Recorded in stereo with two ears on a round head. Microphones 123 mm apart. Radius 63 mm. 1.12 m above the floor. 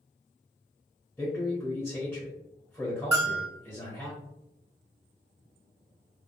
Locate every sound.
1.2 s a man speaking: centre (ahead or behind), 0.9 m
3.1 s a bell: 35° right (ahead or behind), 1.6 m